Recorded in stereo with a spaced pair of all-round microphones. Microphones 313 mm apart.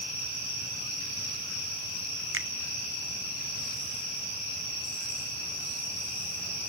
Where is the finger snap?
40° right (ahead or behind), 0.6 m.